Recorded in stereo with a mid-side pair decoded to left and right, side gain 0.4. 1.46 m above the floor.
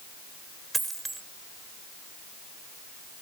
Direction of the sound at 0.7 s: 25° right.